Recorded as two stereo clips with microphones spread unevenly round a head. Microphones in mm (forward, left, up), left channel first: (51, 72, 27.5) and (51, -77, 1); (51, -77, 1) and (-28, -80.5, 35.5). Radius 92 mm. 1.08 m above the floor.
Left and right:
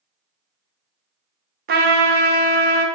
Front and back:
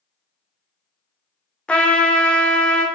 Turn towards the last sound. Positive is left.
turn(degrees=-70)